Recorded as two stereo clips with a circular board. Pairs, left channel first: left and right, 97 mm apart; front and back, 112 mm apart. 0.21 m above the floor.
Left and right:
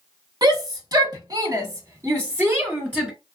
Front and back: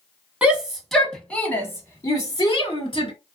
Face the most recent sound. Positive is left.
turn(degrees=-20)